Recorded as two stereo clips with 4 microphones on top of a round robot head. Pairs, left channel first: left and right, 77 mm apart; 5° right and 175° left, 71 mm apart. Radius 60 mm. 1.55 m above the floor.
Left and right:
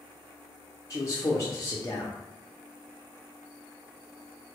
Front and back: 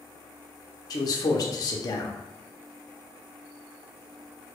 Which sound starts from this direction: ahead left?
A man speaking, at 0.9 s.